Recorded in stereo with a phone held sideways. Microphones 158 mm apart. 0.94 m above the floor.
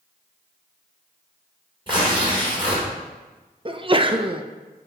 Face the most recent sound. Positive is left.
turn(degrees=-35)  # may be behind; listen again after turning